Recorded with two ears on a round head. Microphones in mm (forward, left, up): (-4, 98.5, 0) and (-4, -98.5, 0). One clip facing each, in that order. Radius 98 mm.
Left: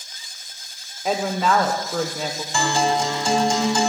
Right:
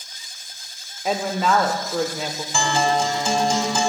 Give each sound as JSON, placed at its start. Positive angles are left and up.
{"t": 1.1, "sound": "a woman speaking", "side_deg": 0, "distance_m": 1.0}
{"t": 2.5, "sound": "a guitar", "side_deg": -5, "distance_m": 3.0}